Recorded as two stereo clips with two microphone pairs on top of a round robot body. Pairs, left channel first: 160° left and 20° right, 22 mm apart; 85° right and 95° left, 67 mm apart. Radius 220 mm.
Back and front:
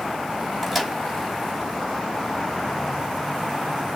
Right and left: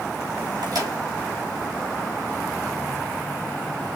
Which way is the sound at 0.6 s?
75° left.